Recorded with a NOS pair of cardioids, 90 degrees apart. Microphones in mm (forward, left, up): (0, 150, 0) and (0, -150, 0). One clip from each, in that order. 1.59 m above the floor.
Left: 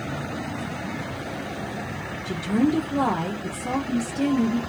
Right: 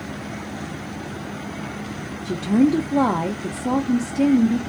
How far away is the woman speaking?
About 0.5 m.